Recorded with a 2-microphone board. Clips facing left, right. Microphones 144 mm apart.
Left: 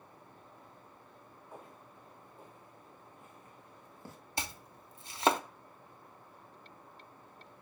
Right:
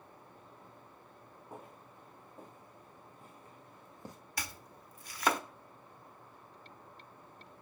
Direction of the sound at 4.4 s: 25° left (ahead or behind).